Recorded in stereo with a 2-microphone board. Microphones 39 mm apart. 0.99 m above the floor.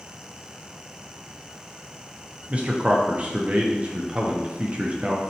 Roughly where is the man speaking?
Right.